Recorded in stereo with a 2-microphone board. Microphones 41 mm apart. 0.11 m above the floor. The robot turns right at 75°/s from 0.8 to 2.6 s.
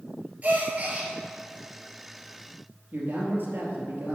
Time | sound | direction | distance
0.4 | a gasp | 35° right (ahead or behind) | 1.7 m
2.9 | a man speaking | 60° right (ahead or behind) | 2.5 m